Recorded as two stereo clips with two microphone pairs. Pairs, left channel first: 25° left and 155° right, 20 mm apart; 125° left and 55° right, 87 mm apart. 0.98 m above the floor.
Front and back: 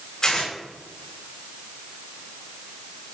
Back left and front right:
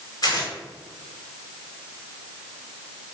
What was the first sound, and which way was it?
Tearing paper, 80° left.